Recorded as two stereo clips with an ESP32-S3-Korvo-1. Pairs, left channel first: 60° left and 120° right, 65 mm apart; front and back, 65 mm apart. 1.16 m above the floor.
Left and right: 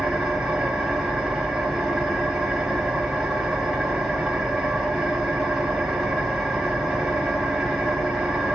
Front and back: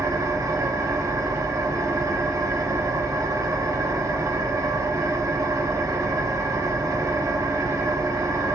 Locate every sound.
0.0 s an engine running: 160° left, 1.1 m